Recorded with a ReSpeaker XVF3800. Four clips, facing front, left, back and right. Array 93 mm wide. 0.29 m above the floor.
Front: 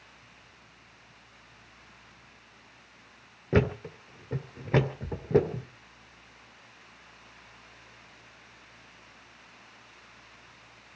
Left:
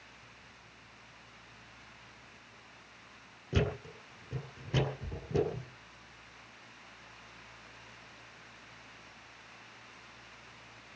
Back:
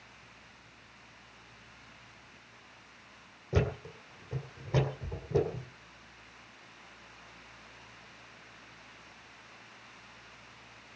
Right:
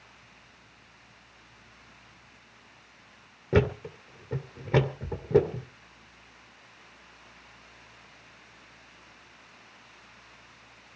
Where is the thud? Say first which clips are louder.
Right 9 dB, front 6 dB; 40° right, 2.5 m.